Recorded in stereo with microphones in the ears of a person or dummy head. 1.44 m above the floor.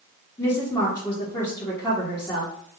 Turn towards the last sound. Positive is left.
turn(degrees=20)  # may be behind; listen again after turning